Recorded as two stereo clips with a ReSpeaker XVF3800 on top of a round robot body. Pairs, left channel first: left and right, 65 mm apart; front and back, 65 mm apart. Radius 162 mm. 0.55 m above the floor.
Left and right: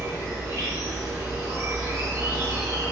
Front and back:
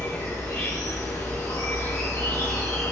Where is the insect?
50° right, 1.1 m.